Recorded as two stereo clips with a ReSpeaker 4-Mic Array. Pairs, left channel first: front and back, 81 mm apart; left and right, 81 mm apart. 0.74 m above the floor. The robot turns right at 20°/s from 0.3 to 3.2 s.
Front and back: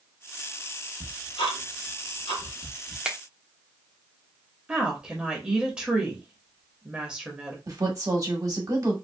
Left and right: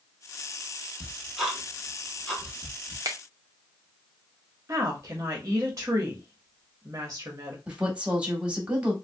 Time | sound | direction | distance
1.0 | ticking | 10° right | 1.0 m
3.0 | a finger snap | 105° right | 0.5 m
4.7 | a woman speaking | 110° right | 0.9 m
7.7 | a woman speaking | 160° right | 1.0 m